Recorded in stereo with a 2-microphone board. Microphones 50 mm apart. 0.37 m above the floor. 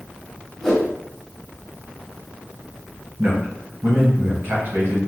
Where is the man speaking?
45° right (ahead or behind), 1.6 m.